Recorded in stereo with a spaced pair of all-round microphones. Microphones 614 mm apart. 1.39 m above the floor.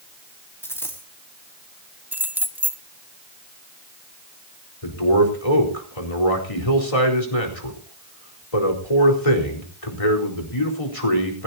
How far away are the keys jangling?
About 1.4 m.